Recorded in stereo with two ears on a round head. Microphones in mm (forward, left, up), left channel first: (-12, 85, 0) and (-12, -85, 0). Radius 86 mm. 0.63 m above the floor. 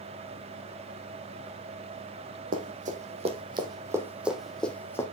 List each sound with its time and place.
2.5 s running footsteps: 45° right (ahead or behind), 1.5 m; by 5.0 s 15° left (ahead or behind), 1.3 m